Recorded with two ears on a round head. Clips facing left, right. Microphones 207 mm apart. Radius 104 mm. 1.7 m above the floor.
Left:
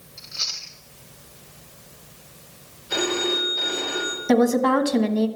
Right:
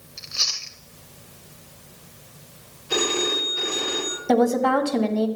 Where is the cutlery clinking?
I don't hear cutlery clinking.